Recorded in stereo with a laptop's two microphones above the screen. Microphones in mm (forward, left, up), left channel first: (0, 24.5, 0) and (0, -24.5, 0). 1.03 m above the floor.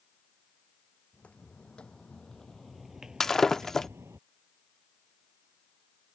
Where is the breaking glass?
10° left (ahead or behind).